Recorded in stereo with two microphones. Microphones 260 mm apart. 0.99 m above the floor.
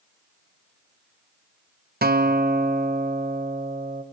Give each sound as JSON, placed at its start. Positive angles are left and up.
{"t": 2.0, "sound": "a guitar", "side_deg": -35, "distance_m": 0.8}